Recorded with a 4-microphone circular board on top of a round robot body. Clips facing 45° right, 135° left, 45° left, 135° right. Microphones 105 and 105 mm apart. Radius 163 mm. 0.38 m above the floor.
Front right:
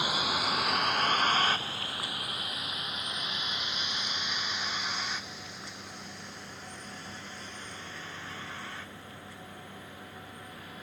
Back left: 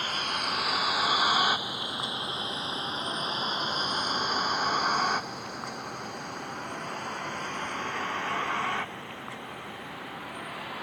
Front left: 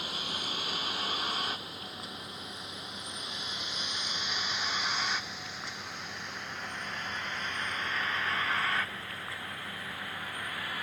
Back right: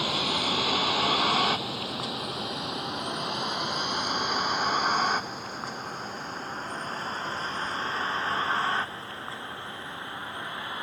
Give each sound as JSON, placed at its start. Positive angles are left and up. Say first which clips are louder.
{"t": 0.0, "sound": "a vehicle", "louder": "front right 1 dB, back right 10 dB", "azimuth_deg": -125}